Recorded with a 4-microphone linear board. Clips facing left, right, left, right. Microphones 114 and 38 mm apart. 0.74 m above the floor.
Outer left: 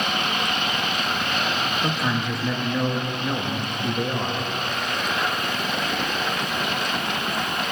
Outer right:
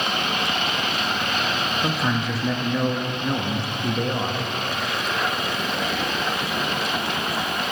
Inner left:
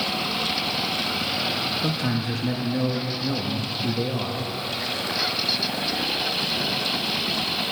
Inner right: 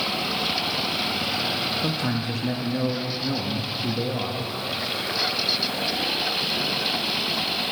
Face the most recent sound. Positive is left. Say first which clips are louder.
# outer right 2 dB, even
turn(degrees=0)  # may be behind; listen again after turning